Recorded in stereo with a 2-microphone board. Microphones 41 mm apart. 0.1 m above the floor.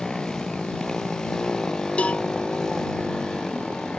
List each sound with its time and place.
0.0 s a motorcycle: 10° left (ahead or behind); by 4.0 s 15° left (ahead or behind)
2.0 s a cowbell: 30° left (ahead or behind)